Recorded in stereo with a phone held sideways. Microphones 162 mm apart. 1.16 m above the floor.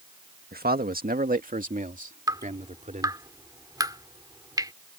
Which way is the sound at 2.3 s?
25° right (ahead or behind).